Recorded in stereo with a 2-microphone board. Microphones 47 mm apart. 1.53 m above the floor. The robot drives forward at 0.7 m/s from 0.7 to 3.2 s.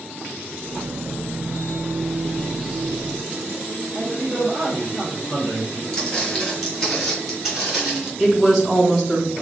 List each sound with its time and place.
3.9 s a man speaking: 25° right (ahead or behind), 1.2 m
5.9 s footsteps: 15° left (ahead or behind), 1.9 m; by 8.1 s 15° right (ahead or behind), 1.5 m
8.2 s a woman speaking: centre (ahead or behind), 1.9 m